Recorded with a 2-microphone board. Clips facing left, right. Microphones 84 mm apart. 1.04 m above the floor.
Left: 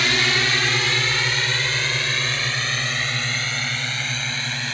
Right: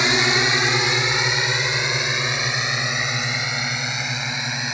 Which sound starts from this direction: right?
A drone, at 0.0 s.